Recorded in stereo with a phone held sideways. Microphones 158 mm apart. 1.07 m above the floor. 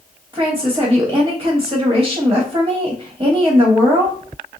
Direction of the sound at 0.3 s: 30° right (ahead or behind).